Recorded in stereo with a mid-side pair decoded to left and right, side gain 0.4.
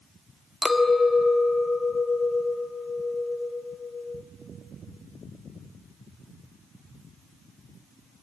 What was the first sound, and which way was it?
A clink, 20° left.